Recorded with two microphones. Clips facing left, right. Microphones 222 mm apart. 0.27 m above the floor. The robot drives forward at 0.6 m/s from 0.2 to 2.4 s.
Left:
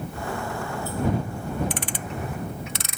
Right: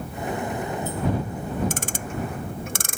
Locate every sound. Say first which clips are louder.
1.7 s ticking: right 1 dB; 50° right (ahead or behind); by 3.0 s 55° right (ahead or behind)